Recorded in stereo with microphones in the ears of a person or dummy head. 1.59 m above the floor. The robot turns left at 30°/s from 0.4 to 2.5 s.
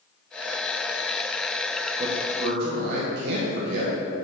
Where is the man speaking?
45° right (ahead or behind), 1.3 m; by 3.9 s 60° right (ahead or behind), 1.3 m.